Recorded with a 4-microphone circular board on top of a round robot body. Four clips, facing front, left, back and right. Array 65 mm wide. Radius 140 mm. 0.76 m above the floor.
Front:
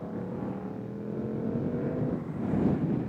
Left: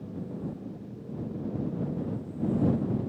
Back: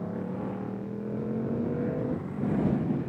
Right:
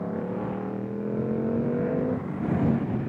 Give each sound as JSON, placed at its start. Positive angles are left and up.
{"t": 0.0, "sound": "a motorcycle", "azimuth_deg": -100}